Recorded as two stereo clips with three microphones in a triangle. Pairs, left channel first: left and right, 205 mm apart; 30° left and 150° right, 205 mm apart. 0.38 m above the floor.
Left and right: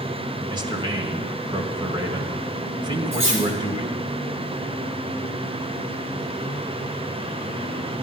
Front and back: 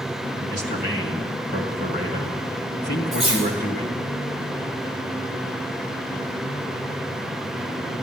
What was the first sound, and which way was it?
A man speaking, 150° right.